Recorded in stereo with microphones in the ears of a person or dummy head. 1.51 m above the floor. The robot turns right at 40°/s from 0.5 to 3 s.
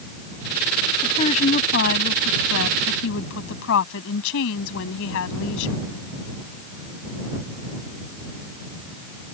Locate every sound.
1.0 s a woman speaking: 25° left; by 5.7 s 100° left